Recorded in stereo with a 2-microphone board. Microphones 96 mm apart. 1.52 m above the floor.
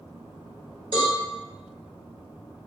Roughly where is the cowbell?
Right.